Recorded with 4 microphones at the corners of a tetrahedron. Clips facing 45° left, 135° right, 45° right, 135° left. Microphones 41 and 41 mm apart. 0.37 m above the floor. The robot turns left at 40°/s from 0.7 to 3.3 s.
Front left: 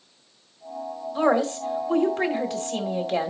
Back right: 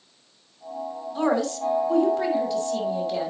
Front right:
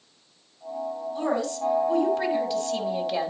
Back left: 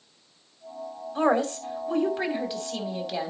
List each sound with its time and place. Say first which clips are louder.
1.1 s a woman speaking: front left 2 dB, back left 4 dB; 115° left, 2.5 m; by 3.3 s 30° left, 2.5 m